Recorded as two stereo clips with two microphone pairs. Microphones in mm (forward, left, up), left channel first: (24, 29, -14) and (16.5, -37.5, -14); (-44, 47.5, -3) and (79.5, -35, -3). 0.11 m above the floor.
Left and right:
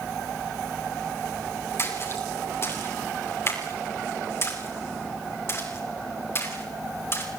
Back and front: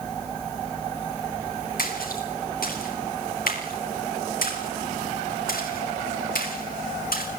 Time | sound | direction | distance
1.8 | a splash | 135° left | 7.5 m